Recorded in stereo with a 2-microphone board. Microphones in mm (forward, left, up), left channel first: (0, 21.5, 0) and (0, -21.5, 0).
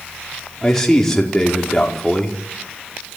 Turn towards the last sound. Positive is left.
turn(degrees=15)  # may be behind; listen again after turning